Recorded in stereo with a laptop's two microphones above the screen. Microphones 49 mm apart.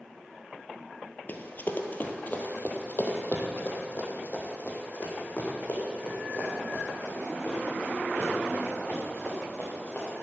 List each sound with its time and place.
1.3 s running footsteps: 40° left (ahead or behind), 1.4 m; by 10.2 s 25° left (ahead or behind), 7 m